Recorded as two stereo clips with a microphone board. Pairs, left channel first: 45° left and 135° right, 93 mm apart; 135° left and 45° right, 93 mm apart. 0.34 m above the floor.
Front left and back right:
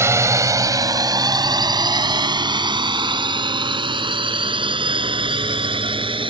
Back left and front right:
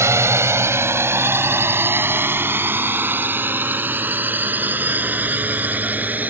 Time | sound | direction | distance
0.0 | a drone | 90° right | ?